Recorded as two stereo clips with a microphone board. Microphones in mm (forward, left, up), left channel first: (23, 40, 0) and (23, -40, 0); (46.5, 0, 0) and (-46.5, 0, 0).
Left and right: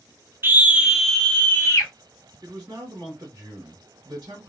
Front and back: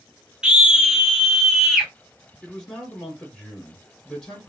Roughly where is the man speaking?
Right.